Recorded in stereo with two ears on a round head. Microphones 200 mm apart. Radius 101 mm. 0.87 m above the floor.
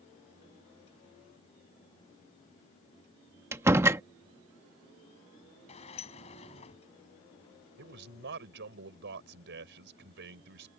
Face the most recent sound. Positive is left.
turn(degrees=-60)  # may be behind; listen again after turning